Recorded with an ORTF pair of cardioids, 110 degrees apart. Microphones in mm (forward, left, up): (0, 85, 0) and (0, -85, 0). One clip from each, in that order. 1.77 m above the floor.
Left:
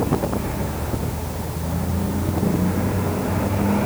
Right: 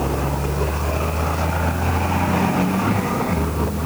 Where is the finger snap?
I don't hear a finger snap.